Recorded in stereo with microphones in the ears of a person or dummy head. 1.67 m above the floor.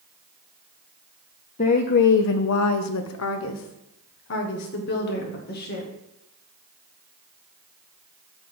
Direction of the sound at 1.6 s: 30° left (ahead or behind).